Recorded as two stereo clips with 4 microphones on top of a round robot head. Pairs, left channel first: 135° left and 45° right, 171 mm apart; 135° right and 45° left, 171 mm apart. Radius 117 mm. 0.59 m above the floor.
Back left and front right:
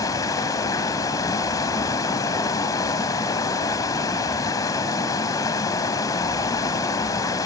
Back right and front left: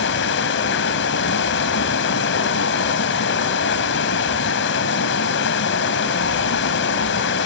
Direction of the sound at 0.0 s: 155° right.